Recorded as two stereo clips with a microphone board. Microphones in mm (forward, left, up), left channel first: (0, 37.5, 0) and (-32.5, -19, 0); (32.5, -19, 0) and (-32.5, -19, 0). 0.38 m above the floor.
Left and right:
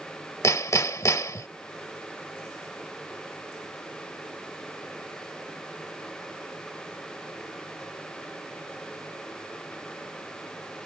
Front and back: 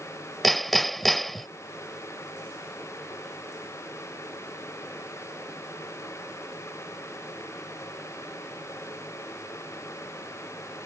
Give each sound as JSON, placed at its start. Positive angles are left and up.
{"t": 0.4, "sound": "hammering", "azimuth_deg": 90}